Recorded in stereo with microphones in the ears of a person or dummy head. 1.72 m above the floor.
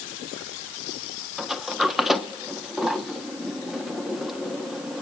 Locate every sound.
1.4 s a sliding door: 5° right (ahead or behind), 1.3 m